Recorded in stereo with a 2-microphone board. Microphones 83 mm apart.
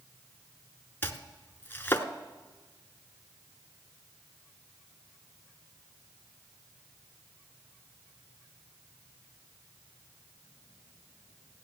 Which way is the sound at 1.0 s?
25° left (ahead or behind).